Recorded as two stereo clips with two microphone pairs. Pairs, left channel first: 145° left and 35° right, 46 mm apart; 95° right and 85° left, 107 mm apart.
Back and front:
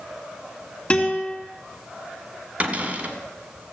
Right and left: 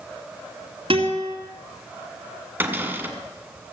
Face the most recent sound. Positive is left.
turn(degrees=15)